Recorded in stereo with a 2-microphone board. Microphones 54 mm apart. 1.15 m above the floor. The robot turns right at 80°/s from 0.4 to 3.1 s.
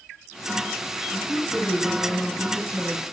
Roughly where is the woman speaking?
Ahead left.